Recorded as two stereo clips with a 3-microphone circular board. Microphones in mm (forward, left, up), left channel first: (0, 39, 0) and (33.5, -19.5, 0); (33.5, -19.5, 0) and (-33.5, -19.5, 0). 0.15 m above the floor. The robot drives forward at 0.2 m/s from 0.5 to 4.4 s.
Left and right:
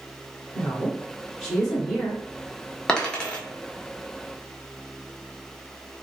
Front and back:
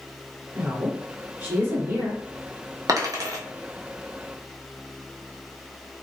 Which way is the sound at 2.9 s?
165° right.